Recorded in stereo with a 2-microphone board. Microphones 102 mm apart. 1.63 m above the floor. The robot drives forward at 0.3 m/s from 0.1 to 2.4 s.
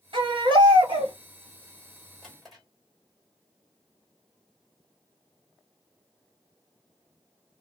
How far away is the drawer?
About 1.9 m.